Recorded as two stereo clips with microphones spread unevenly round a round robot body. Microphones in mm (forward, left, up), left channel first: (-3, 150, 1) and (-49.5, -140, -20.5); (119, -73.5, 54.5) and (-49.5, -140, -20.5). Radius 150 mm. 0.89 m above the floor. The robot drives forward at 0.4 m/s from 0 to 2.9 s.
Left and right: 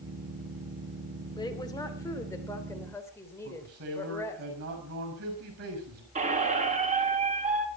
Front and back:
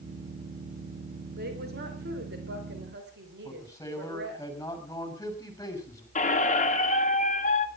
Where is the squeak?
30° right, 1.4 m.